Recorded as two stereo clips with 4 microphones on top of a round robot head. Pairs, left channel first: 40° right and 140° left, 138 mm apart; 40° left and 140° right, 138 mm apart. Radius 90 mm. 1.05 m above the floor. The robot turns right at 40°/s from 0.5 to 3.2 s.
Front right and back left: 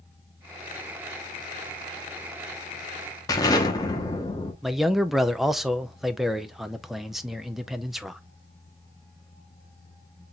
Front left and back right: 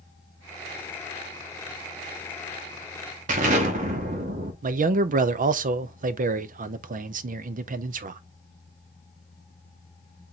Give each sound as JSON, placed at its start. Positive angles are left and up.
{"t": 3.3, "sound": "an explosion", "azimuth_deg": -105, "distance_m": 1.0}
{"t": 4.6, "sound": "a man speaking", "azimuth_deg": -130, "distance_m": 0.5}